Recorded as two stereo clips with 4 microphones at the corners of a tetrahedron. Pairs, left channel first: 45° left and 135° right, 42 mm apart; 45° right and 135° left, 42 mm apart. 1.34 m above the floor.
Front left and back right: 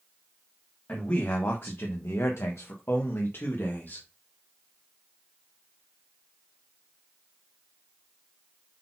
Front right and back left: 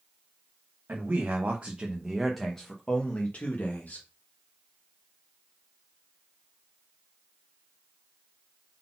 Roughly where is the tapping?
I don't hear tapping.